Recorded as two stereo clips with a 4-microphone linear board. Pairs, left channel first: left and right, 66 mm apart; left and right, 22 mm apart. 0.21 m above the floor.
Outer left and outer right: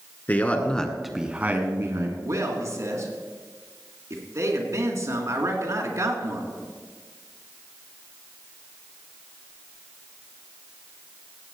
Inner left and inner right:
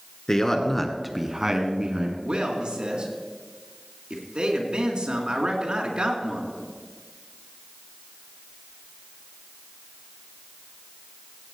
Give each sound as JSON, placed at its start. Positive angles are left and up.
{"t": 0.3, "sound": "a man speaking", "side_deg": 30, "distance_m": 2.0}
{"t": 2.2, "sound": "a man speaking", "side_deg": -55, "distance_m": 3.0}